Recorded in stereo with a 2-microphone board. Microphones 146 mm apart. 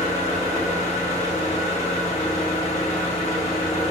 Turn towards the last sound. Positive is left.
turn(degrees=45)  # may be behind; listen again after turning